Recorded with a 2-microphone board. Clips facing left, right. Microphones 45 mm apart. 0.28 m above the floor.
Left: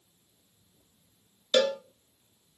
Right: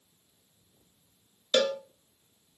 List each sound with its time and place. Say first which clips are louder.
1.5 s a cowbell: left 1 dB; centre (ahead or behind), 0.9 m